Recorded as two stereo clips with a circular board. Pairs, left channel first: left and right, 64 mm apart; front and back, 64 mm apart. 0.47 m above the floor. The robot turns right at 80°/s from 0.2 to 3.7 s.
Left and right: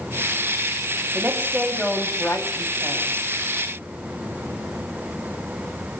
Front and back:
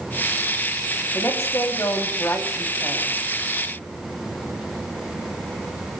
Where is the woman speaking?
45° right, 3.5 m; by 3.1 s 110° left, 3.5 m.